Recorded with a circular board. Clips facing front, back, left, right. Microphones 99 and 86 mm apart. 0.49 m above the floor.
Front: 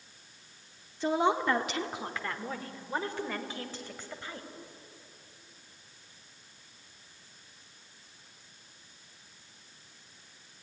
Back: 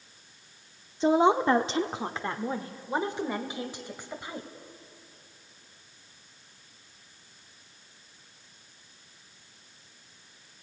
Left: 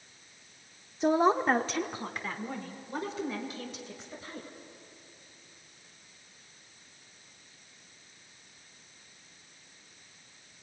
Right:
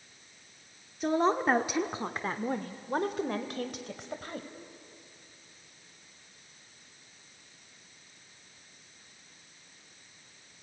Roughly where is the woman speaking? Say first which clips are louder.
Back 6 dB, left 2 dB; behind left.